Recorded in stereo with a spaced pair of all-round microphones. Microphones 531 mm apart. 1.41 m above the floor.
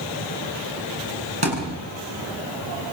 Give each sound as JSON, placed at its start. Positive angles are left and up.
{"t": 1.4, "sound": "a thud", "side_deg": -50, "distance_m": 8.5}